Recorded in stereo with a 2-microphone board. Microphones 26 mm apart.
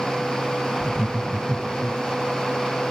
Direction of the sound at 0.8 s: 55° left (ahead or behind).